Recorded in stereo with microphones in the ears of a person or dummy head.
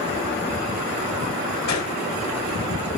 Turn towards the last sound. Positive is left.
turn(degrees=80)